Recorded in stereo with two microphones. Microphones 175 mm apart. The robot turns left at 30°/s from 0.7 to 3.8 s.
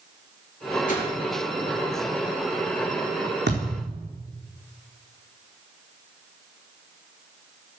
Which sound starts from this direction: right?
A thud, at 3.5 s.